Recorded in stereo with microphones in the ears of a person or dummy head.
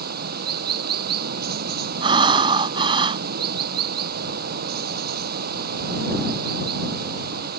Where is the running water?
55° right (ahead or behind).